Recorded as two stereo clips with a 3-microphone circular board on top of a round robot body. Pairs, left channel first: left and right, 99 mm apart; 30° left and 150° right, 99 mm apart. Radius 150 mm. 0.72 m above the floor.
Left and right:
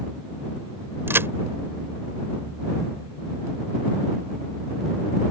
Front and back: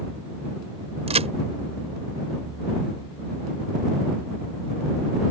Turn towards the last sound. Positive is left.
turn(degrees=-160)